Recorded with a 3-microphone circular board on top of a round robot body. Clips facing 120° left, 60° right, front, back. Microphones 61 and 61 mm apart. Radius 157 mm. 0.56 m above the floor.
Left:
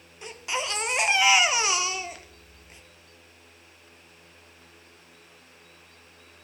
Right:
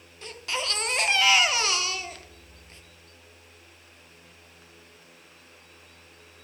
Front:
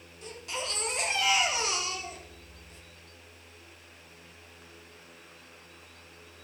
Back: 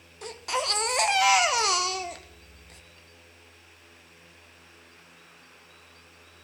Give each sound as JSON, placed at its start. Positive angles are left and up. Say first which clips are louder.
{"t": 0.2, "sound": "a baby crying", "louder": "left 1 dB, back 7 dB", "azimuth_deg": -165, "distance_m": 0.6}